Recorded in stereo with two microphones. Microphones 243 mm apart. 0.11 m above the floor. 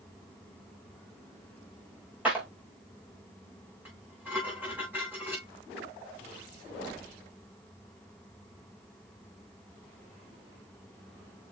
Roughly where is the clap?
Centre.